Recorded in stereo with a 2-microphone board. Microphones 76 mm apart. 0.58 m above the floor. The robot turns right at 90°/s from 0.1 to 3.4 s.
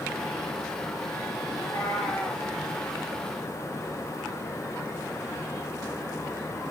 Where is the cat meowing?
100° left, 9.5 m; by 2.5 s 175° right, 9.5 m.